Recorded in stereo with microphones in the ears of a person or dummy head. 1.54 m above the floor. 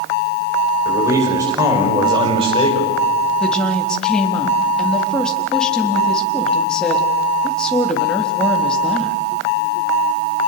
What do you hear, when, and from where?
0.8 s a man speaking: 20° right (ahead or behind), 6.5 m; by 3.0 s 30° right (ahead or behind), 5.5 m
3.4 s a woman speaking: 5° left (ahead or behind), 3.5 m